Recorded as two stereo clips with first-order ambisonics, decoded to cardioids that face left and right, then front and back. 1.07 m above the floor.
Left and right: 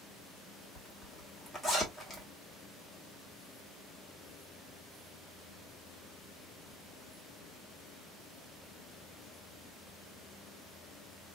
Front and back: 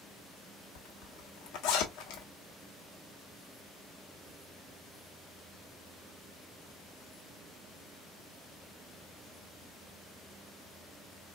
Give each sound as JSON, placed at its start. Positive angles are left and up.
{"t": 0.8, "sound": "a zipper", "azimuth_deg": 15, "distance_m": 1.2}